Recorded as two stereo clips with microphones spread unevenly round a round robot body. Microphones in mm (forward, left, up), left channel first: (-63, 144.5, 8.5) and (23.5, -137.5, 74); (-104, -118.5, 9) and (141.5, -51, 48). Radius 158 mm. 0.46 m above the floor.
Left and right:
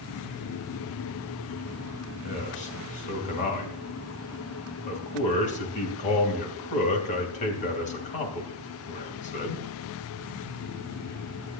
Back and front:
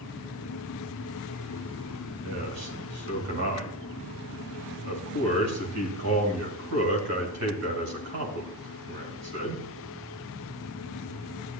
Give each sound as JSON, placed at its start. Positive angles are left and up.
{"t": 2.2, "sound": "a man speaking", "azimuth_deg": 50, "distance_m": 2.5}